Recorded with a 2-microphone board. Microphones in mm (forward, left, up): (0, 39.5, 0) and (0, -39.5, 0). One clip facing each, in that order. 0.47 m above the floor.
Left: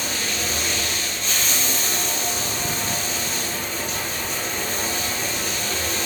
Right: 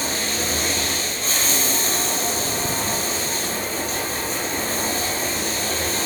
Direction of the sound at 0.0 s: 40° right (ahead or behind).